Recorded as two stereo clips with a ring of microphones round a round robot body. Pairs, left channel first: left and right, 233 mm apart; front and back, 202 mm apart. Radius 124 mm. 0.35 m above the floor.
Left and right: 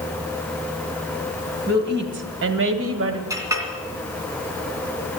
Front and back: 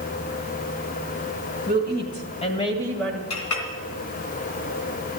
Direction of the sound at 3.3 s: 15° right.